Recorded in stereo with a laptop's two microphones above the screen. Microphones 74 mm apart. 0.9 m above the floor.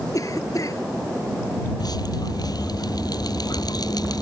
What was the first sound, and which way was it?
A cough, 50° left (ahead or behind).